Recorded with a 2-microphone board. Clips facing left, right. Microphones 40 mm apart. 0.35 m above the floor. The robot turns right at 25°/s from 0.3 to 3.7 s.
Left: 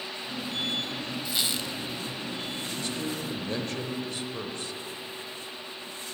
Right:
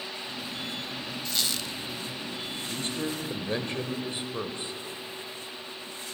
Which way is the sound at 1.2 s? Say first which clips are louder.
Even; 10° left (ahead or behind).